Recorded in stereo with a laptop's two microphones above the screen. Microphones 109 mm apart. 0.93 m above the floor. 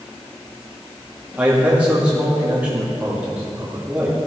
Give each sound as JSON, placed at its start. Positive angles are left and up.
{"t": 1.4, "sound": "a man speaking", "side_deg": -10, "distance_m": 2.0}